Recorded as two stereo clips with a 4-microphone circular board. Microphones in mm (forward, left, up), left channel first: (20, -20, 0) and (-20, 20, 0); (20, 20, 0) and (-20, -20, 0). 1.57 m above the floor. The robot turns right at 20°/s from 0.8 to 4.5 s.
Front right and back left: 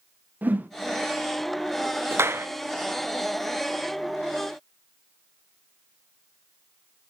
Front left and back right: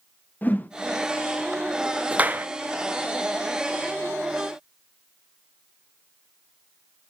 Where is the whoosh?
90° left, 0.7 m.